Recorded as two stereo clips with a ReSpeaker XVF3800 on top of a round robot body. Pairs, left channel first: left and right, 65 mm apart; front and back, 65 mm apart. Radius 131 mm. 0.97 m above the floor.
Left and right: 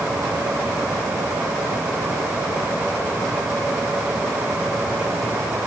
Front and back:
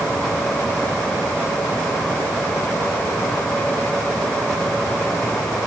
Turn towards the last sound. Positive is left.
No sound to turn to.